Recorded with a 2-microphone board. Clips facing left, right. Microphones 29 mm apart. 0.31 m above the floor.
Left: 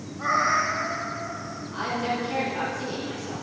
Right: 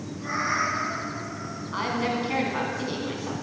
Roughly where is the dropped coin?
No dropped coin in this recording.